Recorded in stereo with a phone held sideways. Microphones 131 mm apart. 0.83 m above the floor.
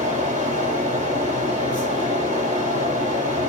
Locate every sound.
0.0 s a fan: 80° right, 3.5 m